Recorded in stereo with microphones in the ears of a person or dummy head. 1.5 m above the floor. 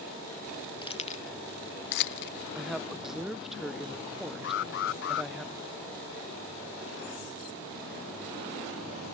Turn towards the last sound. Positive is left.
turn(degrees=60)  # may be behind; listen again after turning